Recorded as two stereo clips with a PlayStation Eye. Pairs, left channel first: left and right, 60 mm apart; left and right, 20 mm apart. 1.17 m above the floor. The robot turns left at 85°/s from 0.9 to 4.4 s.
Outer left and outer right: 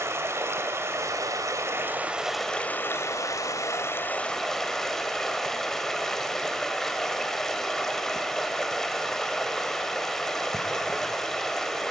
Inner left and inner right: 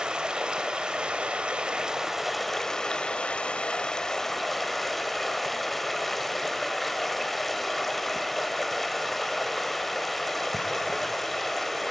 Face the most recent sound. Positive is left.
turn(degrees=5)